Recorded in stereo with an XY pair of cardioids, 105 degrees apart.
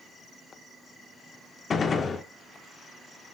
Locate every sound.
1.7 s a gunshot: 45° left, 1.4 m